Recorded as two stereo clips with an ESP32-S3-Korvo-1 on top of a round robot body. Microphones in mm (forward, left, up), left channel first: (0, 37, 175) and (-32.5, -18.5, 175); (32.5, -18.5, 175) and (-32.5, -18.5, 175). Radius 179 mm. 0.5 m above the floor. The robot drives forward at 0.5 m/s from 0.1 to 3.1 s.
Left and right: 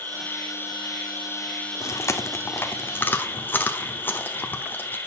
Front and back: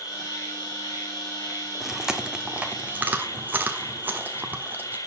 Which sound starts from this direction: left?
Chewing, at 1.8 s.